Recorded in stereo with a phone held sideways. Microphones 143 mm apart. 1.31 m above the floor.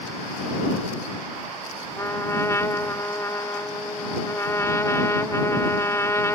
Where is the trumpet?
20° left (ahead or behind).